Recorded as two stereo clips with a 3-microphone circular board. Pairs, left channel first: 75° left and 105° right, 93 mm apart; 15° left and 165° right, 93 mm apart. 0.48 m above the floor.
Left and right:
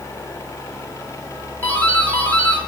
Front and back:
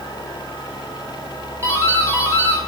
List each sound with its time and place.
1.6 s a doorbell: 135° left, 2 m